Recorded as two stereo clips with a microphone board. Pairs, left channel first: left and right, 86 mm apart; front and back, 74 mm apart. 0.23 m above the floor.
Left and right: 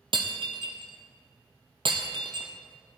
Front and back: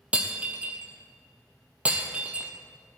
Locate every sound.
0.1 s breaking glass: 105° right, 1.7 m